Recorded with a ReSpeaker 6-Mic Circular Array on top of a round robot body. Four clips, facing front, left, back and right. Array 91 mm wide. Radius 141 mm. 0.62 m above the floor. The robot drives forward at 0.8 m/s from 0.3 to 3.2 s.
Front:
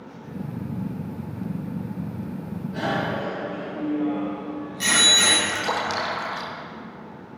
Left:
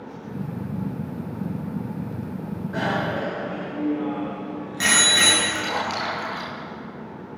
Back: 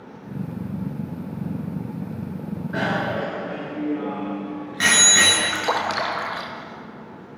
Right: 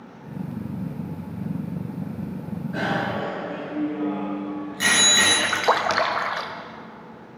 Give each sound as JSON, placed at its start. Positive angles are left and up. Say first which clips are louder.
{"t": 2.7, "sound": "a bicycle bell", "louder": "left 1 dB, back 2 dB", "azimuth_deg": 170, "distance_m": 7.0}
{"t": 5.4, "sound": "a splash", "louder": "right 5 dB, back 2 dB", "azimuth_deg": -105, "distance_m": 1.1}